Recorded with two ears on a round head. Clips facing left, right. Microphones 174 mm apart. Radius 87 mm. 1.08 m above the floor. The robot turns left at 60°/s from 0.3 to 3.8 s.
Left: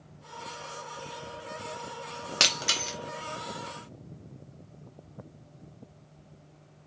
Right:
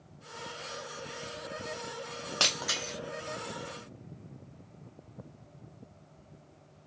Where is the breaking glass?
25° left (ahead or behind), 0.6 m; by 2.9 s 45° left (ahead or behind), 0.6 m.